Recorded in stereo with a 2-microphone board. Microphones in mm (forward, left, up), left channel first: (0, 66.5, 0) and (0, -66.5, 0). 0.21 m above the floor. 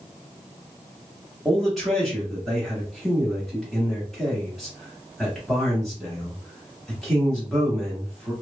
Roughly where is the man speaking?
Centre.